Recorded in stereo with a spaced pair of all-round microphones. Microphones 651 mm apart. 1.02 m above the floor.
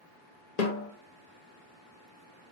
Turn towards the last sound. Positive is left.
turn(degrees=80)